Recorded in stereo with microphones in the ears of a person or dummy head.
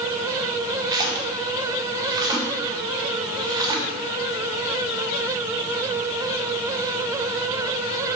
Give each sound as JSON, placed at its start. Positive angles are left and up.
{"t": 0.9, "sound": "a splash", "side_deg": -25, "distance_m": 1.1}